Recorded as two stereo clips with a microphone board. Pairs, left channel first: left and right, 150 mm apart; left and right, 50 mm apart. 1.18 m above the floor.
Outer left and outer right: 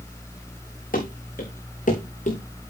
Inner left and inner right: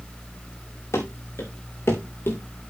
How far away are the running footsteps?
About 4 m.